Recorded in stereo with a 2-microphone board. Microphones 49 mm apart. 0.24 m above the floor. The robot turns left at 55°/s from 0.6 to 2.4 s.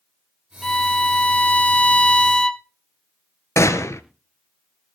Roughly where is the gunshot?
Left.